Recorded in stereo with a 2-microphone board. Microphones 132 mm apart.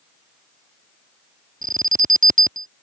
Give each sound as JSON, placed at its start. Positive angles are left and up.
{"t": 1.6, "sound": "an alarm", "side_deg": -90}